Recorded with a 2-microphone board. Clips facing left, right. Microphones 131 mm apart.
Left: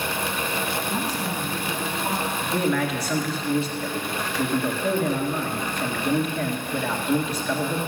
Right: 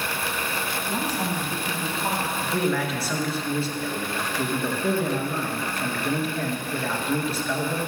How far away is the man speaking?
About 1.7 m.